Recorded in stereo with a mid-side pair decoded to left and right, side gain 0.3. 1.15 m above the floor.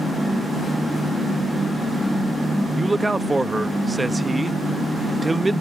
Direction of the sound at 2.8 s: 25° right.